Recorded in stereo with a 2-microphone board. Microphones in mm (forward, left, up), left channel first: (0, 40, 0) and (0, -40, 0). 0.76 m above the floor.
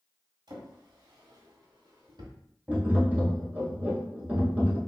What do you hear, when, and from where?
0.5 s a drawer: 70° right (ahead or behind), 1.1 m
2.7 s tapping: 25° right (ahead or behind), 1.5 m